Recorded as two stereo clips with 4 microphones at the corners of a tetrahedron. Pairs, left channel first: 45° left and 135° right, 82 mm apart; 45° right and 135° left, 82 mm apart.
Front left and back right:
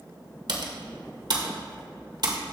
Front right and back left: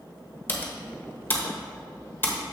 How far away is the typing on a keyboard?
About 1.2 m.